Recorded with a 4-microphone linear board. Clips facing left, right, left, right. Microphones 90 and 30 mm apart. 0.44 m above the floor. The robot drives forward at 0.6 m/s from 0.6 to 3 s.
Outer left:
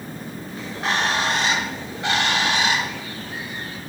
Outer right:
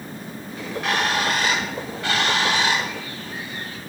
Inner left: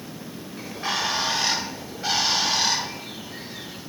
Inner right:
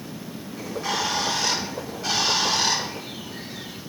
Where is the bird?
35° left (ahead or behind), 1.3 m; by 3.8 s 20° left (ahead or behind), 2.5 m.